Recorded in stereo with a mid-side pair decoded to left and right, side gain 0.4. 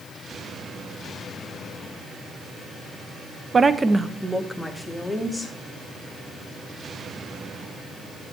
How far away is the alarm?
No alarm in this recording.